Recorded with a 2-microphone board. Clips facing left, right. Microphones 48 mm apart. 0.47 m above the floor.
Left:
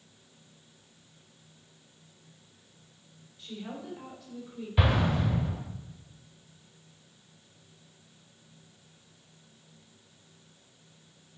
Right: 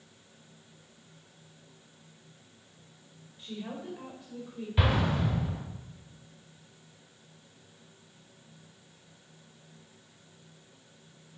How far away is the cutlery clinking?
No cutlery clinking in this recording.